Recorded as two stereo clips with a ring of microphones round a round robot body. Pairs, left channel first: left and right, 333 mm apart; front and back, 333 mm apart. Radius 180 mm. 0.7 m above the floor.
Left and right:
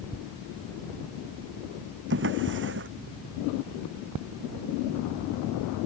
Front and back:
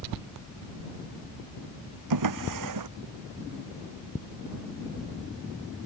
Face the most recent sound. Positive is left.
turn(degrees=-150)